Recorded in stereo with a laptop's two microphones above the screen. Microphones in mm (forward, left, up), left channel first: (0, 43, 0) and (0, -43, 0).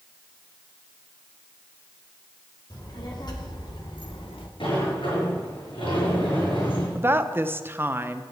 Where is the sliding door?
85° left, 6.5 m.